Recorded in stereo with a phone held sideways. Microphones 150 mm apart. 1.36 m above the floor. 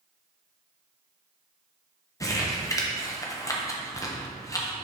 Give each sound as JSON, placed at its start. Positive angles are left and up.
{"t": 2.2, "sound": "crumpling", "side_deg": 20, "distance_m": 0.8}